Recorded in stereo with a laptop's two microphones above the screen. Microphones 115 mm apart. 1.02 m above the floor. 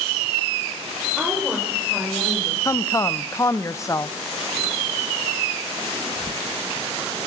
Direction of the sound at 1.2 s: Centre (ahead or behind).